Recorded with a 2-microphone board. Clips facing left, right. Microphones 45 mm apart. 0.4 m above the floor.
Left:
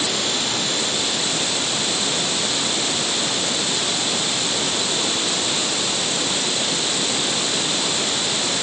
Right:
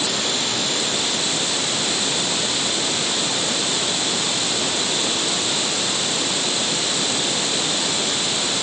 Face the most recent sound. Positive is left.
No sound to turn to.